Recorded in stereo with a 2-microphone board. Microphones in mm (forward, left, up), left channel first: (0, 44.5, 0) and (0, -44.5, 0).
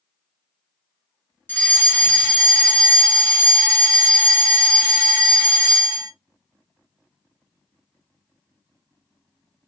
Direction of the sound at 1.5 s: 20° left (ahead or behind).